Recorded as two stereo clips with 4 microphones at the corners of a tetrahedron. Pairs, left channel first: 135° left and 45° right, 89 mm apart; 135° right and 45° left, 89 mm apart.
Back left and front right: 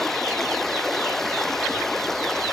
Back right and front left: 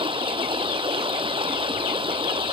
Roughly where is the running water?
Ahead left.